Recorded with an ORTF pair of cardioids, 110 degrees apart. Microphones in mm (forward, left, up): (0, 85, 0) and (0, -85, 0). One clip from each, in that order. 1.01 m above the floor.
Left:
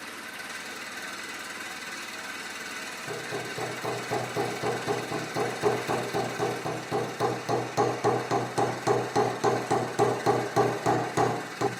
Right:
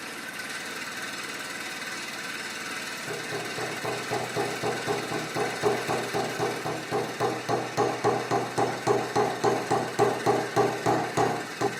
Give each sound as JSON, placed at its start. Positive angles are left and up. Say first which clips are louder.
{"t": 0.0, "sound": "an engine running", "louder": "right 2 dB", "azimuth_deg": -15, "distance_m": 7.0}
{"t": 3.1, "sound": "hammering", "louder": "even", "azimuth_deg": 0, "distance_m": 1.6}